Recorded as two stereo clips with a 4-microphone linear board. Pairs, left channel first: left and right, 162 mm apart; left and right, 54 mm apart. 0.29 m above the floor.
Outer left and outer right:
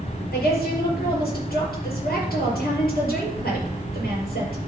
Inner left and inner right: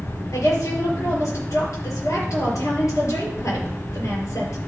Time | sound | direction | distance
0.3 | a woman speaking | 70° left (ahead or behind) | 5.5 m